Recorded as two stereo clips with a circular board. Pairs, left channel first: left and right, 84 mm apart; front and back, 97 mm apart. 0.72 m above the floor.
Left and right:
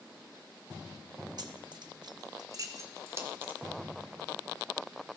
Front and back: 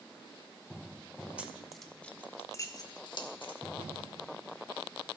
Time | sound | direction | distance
1.4 | keys jangling | 105° right | 0.9 m